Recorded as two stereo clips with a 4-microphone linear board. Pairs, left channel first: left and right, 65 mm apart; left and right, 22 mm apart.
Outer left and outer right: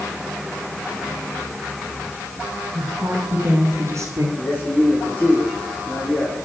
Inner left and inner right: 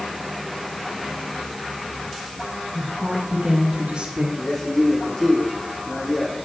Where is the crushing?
No crushing in this recording.